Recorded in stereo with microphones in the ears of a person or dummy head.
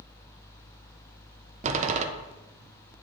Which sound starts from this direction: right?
A door slam, at 1.6 s.